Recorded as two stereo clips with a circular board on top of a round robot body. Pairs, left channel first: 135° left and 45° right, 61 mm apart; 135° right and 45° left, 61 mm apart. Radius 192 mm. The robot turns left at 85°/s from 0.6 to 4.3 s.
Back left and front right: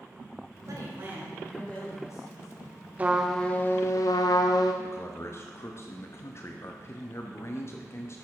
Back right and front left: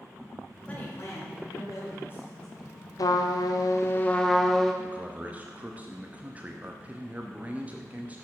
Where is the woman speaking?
65° right, 3 m; by 2.8 s 115° left, 3 m.